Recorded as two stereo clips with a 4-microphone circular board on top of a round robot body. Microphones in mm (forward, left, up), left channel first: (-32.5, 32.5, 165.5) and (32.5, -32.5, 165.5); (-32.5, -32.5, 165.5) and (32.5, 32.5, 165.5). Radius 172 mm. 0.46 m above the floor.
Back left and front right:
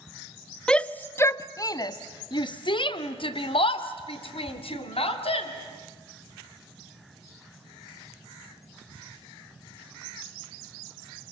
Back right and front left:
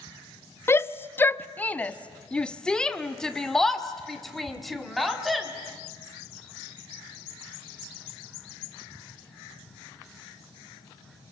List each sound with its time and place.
0.7 s a shout: 150° right, 1.0 m; by 5.5 s 135° left, 3 m